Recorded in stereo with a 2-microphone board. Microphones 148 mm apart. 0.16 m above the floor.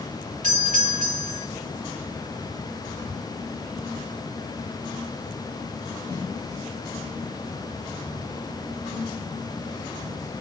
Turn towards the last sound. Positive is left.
turn(degrees=-60)  # may be behind; listen again after turning